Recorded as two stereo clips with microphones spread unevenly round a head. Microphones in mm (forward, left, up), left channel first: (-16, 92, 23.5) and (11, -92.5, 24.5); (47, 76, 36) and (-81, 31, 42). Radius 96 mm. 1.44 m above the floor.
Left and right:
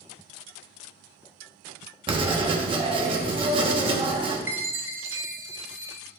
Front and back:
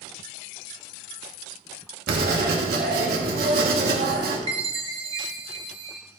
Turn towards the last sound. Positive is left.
turn(degrees=-155)